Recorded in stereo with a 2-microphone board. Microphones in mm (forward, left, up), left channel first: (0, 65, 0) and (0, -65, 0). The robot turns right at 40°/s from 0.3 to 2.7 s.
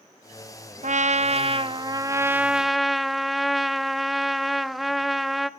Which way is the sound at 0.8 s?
75° right.